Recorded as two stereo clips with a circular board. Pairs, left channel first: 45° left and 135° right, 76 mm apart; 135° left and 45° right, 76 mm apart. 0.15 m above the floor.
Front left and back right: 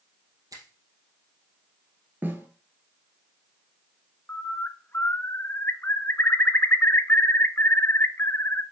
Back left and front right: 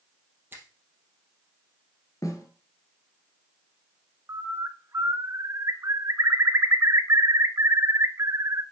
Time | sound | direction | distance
0.5 | a finger snap | 105° right | 3 m
2.2 | a snare drum | 165° left | 1.6 m
4.3 | a bird | 10° right | 1.0 m